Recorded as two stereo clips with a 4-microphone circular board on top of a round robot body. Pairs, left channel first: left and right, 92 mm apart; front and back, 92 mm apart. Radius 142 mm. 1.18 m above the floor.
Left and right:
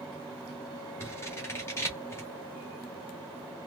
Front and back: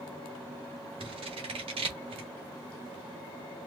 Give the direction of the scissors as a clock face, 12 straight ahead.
7 o'clock.